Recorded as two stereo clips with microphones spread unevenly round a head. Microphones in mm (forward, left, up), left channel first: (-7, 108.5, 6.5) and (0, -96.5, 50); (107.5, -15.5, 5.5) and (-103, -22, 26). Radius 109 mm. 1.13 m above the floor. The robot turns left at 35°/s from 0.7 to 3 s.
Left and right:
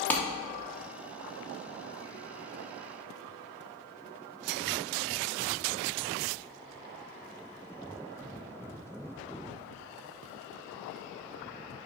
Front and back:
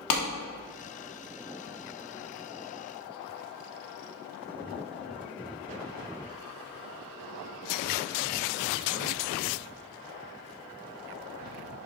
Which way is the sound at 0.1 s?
10° left.